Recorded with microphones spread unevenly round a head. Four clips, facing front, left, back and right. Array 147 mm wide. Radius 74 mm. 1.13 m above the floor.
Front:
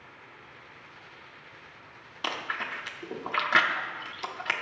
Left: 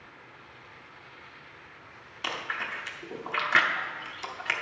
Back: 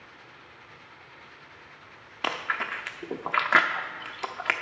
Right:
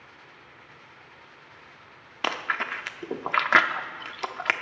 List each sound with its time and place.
2.2 s chewing: 120° right, 0.8 m